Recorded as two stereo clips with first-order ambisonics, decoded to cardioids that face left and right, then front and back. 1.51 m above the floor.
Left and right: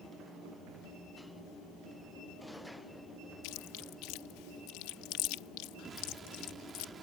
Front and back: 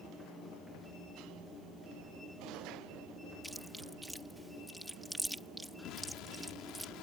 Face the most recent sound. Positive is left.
turn(degrees=-25)